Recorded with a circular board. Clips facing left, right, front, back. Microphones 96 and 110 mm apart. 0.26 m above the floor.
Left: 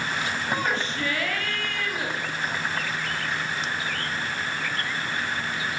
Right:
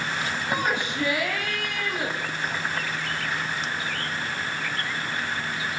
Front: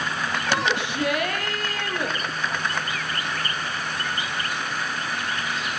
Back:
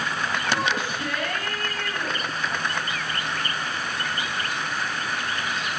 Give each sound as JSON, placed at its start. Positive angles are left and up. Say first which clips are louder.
{"t": 0.5, "sound": "a shout", "louder": "right 1 dB, front 3 dB", "azimuth_deg": -15, "distance_m": 8.5}